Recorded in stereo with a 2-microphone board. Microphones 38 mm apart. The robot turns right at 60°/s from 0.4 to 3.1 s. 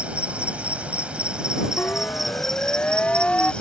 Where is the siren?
60° left (ahead or behind); by 3.5 s 30° left (ahead or behind).